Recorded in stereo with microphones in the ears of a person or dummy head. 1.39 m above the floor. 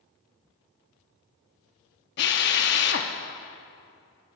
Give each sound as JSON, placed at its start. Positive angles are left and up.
{"t": 2.2, "sound": "a drill", "side_deg": 55, "distance_m": 0.9}